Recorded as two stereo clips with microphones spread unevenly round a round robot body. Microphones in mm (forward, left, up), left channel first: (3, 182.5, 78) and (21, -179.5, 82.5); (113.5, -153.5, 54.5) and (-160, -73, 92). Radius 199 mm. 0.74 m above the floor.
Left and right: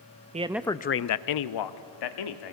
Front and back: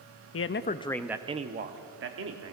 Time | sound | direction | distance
0.3 | a man speaking | 20° right | 0.7 m